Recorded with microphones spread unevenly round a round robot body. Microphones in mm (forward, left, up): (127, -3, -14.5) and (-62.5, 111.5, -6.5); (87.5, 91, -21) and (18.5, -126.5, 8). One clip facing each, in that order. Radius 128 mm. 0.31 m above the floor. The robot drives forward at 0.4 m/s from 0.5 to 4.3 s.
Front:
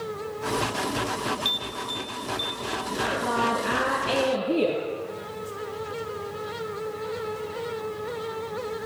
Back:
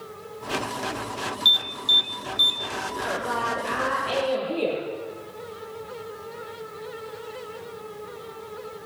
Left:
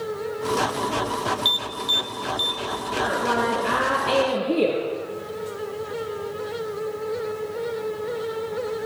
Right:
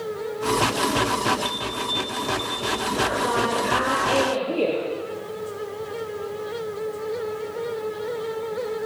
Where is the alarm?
95° left, 1.5 m; by 2.6 s 110° left, 1.6 m.